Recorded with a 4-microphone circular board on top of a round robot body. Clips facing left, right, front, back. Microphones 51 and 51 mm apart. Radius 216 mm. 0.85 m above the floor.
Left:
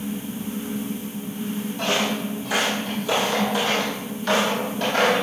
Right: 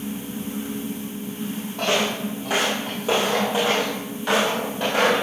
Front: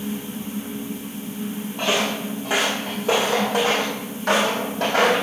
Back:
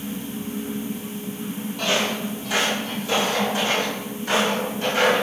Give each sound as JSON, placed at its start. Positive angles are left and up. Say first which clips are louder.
{"t": 1.8, "sound": "footsteps", "louder": "right 2 dB, front 1 dB", "azimuth_deg": -60, "distance_m": 1.8}